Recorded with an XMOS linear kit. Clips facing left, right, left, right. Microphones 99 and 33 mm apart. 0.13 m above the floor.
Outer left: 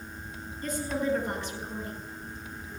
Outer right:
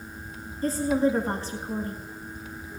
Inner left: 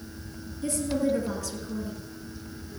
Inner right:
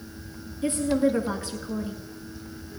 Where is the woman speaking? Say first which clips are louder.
Outer right 7 dB, inner right 4 dB; 35° right (ahead or behind), 1.7 m.